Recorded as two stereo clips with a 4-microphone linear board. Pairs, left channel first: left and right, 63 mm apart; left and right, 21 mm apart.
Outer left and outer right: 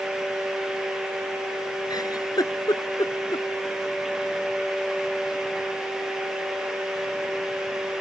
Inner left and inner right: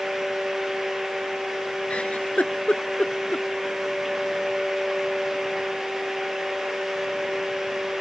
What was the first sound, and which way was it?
A giggle, 85° left.